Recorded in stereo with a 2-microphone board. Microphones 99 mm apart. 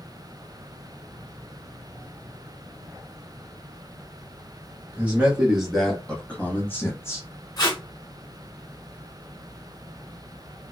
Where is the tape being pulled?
40° left (ahead or behind), 0.8 m.